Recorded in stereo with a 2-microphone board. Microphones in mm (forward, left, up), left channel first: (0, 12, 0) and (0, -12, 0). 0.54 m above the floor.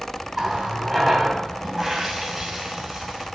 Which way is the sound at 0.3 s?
10° right (ahead or behind).